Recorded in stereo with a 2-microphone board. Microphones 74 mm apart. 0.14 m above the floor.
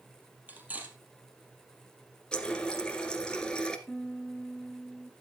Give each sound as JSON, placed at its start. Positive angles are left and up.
{"t": 0.5, "sound": "cutlery clinking", "side_deg": -25, "distance_m": 2.5}
{"t": 2.3, "sound": "a running tap", "side_deg": 10, "distance_m": 1.3}
{"t": 3.9, "sound": "a piano", "side_deg": 10, "distance_m": 1.1}